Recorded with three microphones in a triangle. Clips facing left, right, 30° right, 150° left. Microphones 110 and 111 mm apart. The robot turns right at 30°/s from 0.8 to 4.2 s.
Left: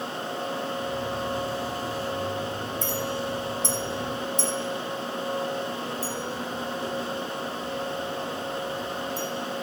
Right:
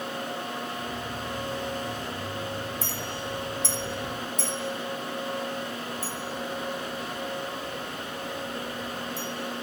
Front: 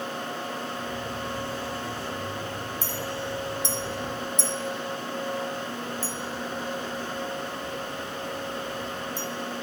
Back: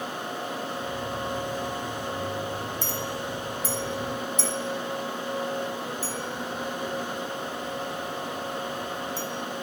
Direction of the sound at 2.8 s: 5° right.